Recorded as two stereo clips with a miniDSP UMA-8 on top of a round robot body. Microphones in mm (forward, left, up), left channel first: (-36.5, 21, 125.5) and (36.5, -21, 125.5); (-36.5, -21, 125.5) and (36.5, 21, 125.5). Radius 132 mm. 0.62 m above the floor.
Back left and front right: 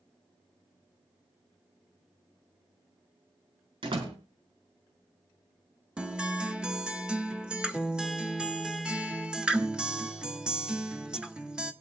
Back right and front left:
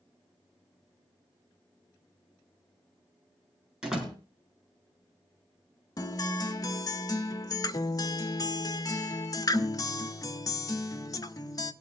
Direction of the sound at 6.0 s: 110° right.